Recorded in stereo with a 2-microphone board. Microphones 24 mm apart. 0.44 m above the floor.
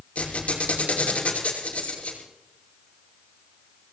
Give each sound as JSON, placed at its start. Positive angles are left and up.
{"t": 0.1, "sound": "a squeak", "side_deg": 65, "distance_m": 6.0}